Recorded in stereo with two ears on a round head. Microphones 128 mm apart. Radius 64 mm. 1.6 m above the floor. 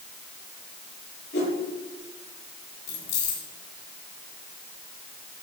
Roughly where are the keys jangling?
Left.